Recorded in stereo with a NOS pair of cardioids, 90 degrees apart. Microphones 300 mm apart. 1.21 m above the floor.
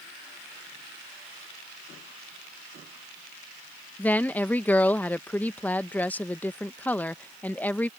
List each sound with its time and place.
4.0 s a woman speaking: 5° left